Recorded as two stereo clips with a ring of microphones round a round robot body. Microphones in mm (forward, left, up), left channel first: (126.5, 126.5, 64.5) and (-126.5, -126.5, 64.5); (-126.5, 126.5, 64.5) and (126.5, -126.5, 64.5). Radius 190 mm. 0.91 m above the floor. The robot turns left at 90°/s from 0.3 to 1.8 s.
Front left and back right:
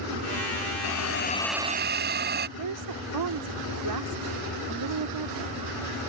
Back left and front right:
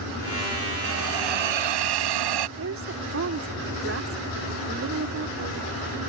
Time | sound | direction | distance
0.8 | a hiss | 15° left | ?
2.6 | a woman speaking | 100° right | ?